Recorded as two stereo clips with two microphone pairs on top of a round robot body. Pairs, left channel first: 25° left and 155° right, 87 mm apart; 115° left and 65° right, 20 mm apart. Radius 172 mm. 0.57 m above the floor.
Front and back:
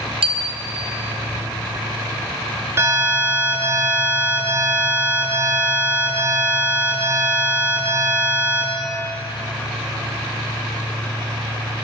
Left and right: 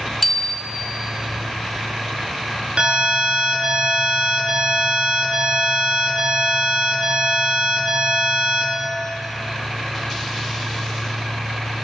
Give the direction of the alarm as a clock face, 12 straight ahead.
3 o'clock.